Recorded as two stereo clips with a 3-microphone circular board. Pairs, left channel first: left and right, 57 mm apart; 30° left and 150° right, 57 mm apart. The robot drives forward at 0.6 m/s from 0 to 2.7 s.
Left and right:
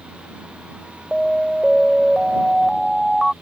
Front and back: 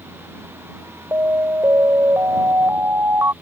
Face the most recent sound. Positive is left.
turn(degrees=180)